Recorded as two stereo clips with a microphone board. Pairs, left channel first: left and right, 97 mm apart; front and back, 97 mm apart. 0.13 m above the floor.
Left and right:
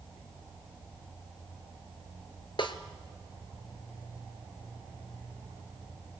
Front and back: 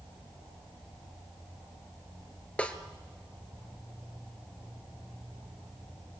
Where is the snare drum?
75° left, 1.2 m.